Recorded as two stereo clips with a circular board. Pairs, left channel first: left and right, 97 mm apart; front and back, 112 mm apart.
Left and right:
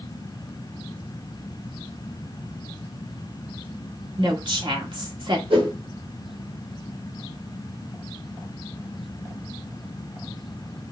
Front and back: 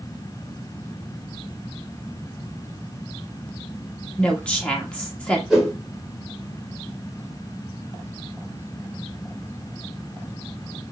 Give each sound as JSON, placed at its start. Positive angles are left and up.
{"t": 4.2, "sound": "a woman speaking", "azimuth_deg": -80, "distance_m": 2.0}
{"t": 5.5, "sound": "a whoosh", "azimuth_deg": -95, "distance_m": 3.0}